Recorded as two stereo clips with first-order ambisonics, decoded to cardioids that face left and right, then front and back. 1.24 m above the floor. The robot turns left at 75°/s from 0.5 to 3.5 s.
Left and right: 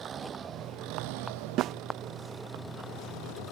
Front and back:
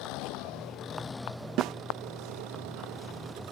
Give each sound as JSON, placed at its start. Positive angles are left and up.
{"t": 0.0, "sound": "an engine running", "azimuth_deg": -25}
{"t": 1.6, "sound": "a snare drum", "azimuth_deg": -135}